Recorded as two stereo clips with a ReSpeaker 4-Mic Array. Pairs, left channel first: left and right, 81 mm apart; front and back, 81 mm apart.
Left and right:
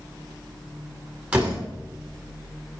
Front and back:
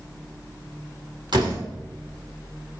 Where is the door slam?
160° right, 3 m.